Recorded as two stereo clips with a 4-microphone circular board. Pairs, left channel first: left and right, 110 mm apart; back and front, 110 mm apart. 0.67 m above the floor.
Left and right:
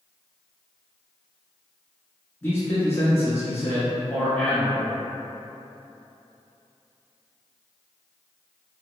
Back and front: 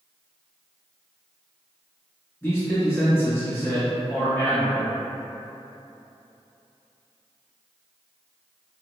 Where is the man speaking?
135° left, 0.9 m.